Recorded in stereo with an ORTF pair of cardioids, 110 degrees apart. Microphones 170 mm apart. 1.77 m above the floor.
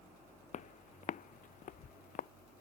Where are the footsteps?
50° left; by 2.3 s 55° left.